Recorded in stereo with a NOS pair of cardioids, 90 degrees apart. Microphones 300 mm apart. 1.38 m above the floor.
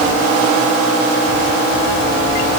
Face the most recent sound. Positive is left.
No sound to turn to.